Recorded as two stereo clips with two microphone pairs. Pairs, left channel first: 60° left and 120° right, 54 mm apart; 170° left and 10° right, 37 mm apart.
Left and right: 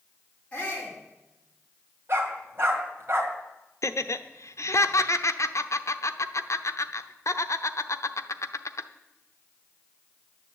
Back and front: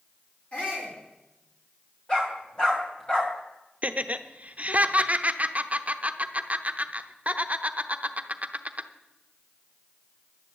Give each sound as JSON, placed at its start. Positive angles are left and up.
{"t": 0.5, "sound": "a shout", "azimuth_deg": 125, "distance_m": 5.0}
{"t": 2.1, "sound": "a dog barking", "azimuth_deg": -130, "distance_m": 2.5}
{"t": 3.8, "sound": "laughter", "azimuth_deg": 40, "distance_m": 0.8}